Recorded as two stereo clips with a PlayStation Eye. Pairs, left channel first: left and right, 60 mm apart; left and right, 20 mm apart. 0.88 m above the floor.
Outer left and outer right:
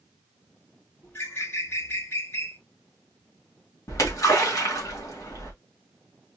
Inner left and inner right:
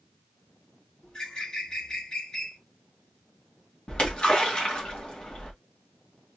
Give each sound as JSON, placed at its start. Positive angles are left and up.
{"t": 1.0, "sound": "a bird", "side_deg": 45, "distance_m": 2.5}
{"t": 3.9, "sound": "a splash", "side_deg": 65, "distance_m": 2.0}